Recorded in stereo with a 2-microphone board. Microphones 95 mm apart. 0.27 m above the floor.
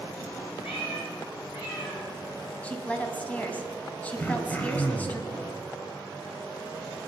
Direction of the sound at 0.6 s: 75° left (ahead or behind).